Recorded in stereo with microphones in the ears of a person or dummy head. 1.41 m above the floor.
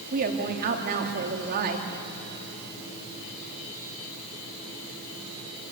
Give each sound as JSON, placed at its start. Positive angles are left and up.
{"t": 0.1, "sound": "a woman speaking", "side_deg": -50, "distance_m": 2.5}